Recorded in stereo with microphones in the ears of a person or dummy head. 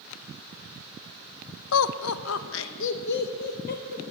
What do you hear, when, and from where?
1.7 s laughter: 80° left, 0.6 m; by 4.0 s 50° left (ahead or behind), 1.5 m